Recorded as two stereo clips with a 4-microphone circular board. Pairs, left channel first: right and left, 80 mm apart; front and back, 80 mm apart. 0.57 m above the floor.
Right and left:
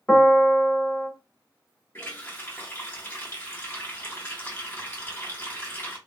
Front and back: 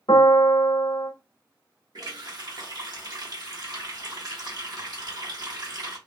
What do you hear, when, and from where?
0.1 s a piano: 20° right, 0.7 m
1.9 s a running tap: 150° right, 1.1 m